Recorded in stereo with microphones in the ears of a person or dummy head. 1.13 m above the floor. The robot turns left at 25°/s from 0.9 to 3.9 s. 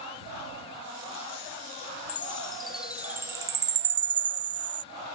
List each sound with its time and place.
2.1 s a chime: 10° left (ahead or behind); by 4.8 s 30° right (ahead or behind)